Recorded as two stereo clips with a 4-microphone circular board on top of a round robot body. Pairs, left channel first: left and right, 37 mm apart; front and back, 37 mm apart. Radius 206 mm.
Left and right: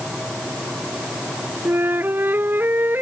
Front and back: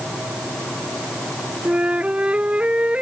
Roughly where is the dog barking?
No dog barking in this recording.